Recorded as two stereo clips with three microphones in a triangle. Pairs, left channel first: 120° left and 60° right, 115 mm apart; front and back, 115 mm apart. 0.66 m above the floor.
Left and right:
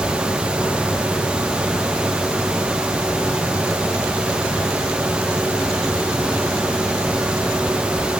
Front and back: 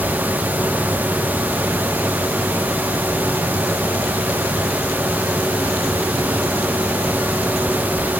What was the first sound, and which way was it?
Only background noise.